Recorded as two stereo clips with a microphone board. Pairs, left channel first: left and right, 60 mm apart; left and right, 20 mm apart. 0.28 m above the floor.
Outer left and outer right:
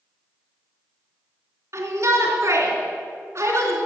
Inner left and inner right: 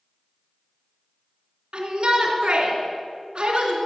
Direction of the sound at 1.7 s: 55° right (ahead or behind).